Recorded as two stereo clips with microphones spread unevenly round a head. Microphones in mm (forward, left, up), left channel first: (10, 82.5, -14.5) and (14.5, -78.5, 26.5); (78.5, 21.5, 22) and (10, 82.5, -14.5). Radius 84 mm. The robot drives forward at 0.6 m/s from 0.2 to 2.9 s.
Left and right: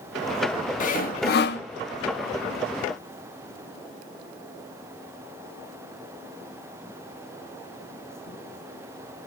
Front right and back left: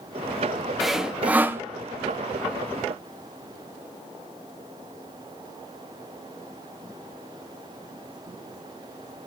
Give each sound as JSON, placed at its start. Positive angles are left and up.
{"t": 0.8, "sound": "sawing", "azimuth_deg": 50, "distance_m": 1.2}